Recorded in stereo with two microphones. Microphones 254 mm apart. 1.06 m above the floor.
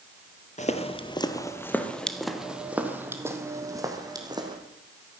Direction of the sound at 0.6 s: 30° left (ahead or behind).